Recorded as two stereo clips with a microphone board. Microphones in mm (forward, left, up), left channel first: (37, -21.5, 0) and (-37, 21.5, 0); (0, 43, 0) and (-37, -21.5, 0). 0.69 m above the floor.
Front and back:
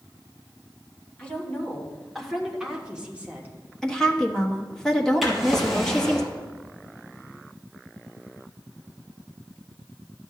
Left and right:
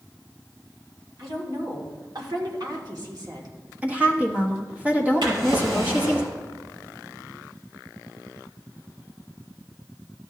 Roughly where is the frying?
I don't hear frying.